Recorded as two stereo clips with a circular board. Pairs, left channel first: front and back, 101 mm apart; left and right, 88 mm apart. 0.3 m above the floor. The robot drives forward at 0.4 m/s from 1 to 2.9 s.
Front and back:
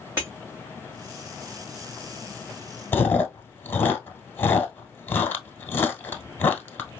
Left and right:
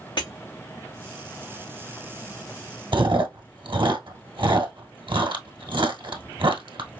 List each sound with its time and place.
0.2 s breaking glass: 110° left, 2.5 m
2.9 s chewing: 70° right, 1.0 m